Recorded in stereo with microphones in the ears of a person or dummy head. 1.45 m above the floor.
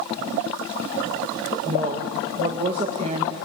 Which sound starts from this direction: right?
A woman speaking, at 1.6 s.